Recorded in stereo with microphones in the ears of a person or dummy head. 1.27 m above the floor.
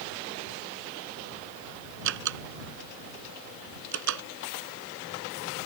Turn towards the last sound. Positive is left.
turn(degrees=-70)  # may be behind; listen again after turning